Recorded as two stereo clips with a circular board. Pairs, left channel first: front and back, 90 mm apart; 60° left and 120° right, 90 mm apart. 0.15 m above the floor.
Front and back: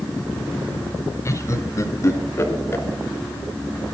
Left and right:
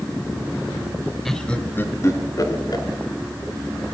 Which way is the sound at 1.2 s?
25° right.